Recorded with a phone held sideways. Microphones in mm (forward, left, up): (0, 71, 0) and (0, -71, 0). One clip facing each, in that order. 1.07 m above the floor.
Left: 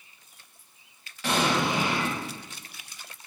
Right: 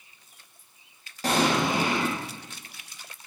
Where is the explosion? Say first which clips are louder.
Right 2 dB; 40° right (ahead or behind), 0.7 m.